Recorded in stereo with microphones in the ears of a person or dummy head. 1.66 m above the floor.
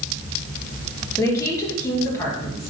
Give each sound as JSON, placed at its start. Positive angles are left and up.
{"t": 1.2, "sound": "a woman speaking", "side_deg": 15, "distance_m": 2.5}